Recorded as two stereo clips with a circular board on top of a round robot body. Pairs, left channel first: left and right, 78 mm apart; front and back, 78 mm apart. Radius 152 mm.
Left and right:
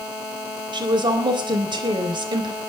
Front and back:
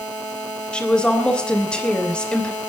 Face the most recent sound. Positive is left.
turn(degrees=-80)